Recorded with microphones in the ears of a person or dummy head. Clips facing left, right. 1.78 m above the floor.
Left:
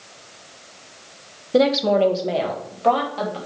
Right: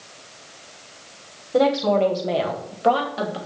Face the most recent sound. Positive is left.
turn(degrees=-20)  # may be behind; listen again after turning